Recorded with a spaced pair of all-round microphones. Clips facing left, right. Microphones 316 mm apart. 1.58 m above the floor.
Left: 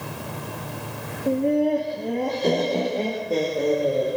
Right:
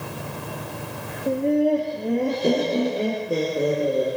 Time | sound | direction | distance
1.3 | laughter | 5° left (ahead or behind) | 2.5 m